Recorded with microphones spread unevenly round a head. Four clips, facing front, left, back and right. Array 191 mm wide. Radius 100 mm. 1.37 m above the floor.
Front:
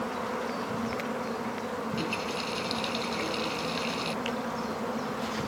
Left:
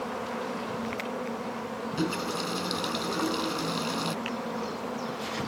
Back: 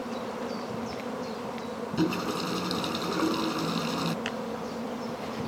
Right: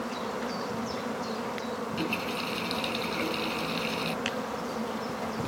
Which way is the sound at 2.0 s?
160° left.